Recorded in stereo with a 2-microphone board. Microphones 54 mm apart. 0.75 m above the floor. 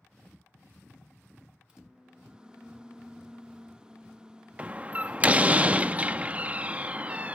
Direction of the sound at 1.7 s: 15° right (ahead or behind).